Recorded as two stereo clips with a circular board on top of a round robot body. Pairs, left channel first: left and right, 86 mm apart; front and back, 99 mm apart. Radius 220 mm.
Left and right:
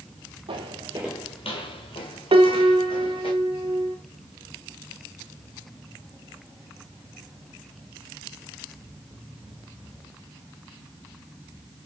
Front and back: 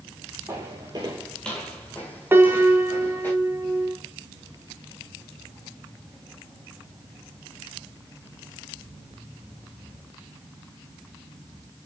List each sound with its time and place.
0.5 s footsteps: 115° right, 1.1 m; by 3.3 s 75° left, 3.5 m
2.3 s a piano: 110° right, 0.9 m